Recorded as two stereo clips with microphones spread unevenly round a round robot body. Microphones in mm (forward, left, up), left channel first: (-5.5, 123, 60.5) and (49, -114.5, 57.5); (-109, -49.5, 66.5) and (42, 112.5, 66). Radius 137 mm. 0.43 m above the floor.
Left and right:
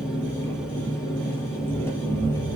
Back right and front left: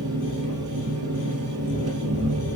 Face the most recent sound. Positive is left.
turn(degrees=20)